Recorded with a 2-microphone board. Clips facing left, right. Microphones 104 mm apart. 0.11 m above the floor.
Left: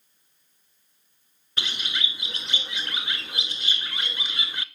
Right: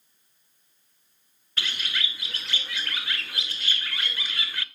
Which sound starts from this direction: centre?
A bird, at 1.6 s.